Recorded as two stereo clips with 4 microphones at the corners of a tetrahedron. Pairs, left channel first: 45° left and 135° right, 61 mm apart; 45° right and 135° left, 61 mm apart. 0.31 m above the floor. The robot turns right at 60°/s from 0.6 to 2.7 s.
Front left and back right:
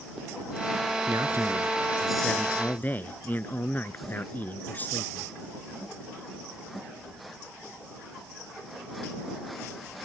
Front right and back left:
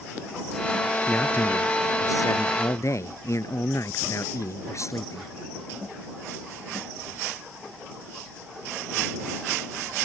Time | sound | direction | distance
1.1 | a man speaking | 115° right | ?